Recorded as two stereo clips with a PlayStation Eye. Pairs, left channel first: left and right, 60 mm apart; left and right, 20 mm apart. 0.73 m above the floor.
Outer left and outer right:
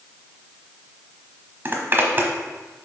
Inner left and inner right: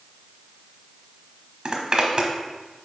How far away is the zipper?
About 1.1 m.